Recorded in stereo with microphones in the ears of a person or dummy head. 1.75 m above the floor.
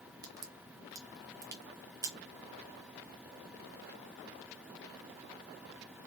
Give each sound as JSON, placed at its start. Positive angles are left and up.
{"t": 0.2, "sound": "a crack", "side_deg": -15, "distance_m": 0.6}